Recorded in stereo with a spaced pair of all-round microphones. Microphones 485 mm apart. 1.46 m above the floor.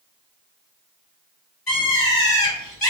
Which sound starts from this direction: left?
A bird, at 1.7 s.